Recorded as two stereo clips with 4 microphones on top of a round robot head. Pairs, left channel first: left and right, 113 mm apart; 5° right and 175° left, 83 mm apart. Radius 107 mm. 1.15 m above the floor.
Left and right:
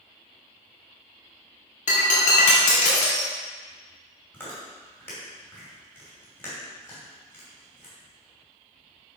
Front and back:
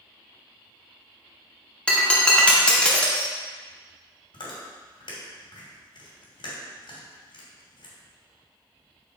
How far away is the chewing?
About 2.5 m.